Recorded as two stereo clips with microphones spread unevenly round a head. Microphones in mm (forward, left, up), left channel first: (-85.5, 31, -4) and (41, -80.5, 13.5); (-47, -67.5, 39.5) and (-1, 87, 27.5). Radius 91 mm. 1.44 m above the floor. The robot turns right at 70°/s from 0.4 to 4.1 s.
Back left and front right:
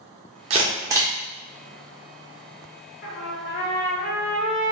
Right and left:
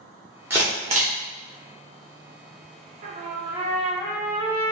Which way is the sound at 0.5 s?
10° right.